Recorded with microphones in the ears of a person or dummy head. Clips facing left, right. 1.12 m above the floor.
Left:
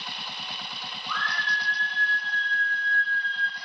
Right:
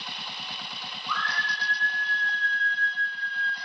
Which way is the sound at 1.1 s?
70° right (ahead or behind).